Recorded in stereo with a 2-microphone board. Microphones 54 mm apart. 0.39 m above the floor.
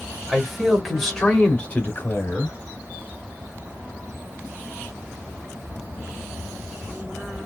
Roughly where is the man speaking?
Centre.